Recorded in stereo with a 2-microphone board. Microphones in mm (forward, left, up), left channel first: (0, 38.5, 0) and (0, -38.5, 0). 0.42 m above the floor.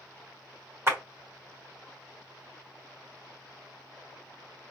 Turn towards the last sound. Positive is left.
turn(degrees=-35)  # may be behind; listen again after turning